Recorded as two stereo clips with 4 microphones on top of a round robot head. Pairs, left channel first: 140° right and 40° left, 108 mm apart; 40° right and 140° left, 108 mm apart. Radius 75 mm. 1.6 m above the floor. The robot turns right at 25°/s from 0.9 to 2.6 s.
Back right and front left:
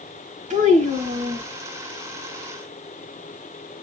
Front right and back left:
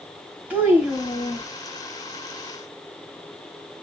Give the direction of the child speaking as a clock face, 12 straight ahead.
10 o'clock.